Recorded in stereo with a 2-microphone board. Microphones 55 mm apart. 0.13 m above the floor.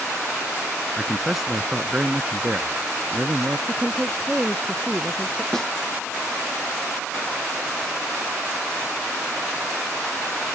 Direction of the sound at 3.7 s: 15° right (ahead or behind).